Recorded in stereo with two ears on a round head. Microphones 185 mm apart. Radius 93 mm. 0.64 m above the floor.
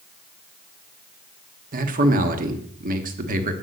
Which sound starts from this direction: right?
A man speaking, at 1.7 s.